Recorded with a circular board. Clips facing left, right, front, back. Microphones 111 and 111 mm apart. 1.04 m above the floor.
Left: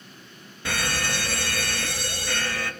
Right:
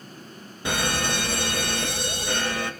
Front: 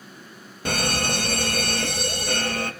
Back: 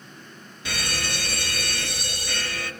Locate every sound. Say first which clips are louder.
0.7 s a fire alarm: right 3 dB, front 6 dB; 25° right, 2.5 m